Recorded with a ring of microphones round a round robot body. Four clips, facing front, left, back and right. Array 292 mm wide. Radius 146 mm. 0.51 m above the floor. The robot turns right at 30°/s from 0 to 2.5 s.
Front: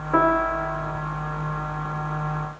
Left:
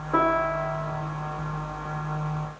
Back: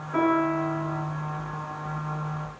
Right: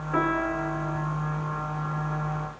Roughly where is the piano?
Ahead.